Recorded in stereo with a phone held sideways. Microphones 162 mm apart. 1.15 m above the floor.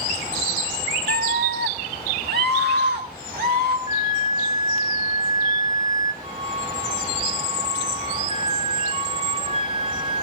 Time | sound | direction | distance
1.1 | a scream | 70° right (ahead or behind) | 0.5 m
3.9 | a flute | 25° right (ahead or behind) | 3.5 m
6.2 | a flute | 40° right (ahead or behind) | 4 m